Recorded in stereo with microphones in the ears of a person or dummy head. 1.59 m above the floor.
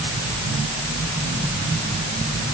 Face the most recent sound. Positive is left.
No sound to turn to.